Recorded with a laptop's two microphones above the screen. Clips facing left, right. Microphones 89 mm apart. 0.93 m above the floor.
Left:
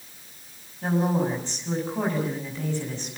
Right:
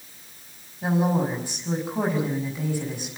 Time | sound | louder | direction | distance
0.8 | a woman speaking | right 1 dB | 10° right (ahead or behind) | 6.5 m